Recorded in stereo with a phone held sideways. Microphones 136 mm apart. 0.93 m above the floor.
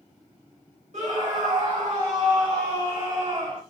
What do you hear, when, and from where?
0.9 s a scream: 60° right (ahead or behind), 1.6 m; by 3.6 s 55° right (ahead or behind), 2.0 m